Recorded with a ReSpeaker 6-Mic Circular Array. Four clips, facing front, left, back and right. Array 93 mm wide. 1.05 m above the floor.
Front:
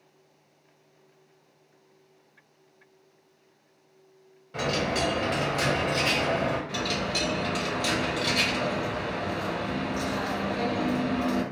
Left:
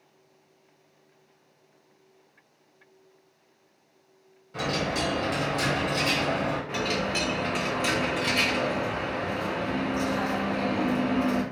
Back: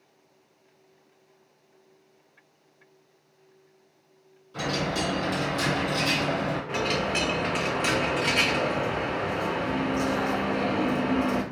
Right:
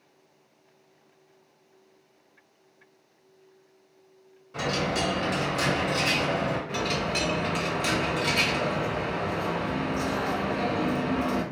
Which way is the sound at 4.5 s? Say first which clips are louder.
Right 1 dB, front 1 dB; 5° right.